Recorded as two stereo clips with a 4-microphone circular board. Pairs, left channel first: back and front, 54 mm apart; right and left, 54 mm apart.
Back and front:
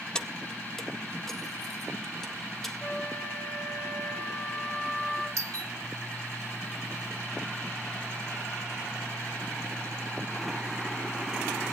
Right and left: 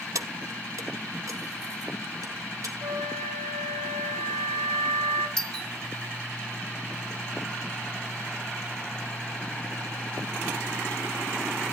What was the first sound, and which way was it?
Keys jangling, 105° left.